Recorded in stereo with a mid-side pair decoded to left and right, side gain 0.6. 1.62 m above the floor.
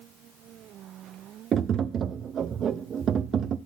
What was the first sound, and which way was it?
Tapping, 45° right.